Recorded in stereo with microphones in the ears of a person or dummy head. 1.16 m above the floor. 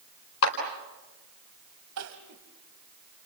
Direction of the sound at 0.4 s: 85° left.